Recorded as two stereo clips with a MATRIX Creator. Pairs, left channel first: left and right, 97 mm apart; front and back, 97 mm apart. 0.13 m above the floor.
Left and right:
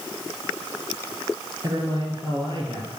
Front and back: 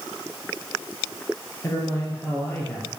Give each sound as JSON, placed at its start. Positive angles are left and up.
{"t": 1.6, "sound": "a man speaking", "azimuth_deg": -50, "distance_m": 3.0}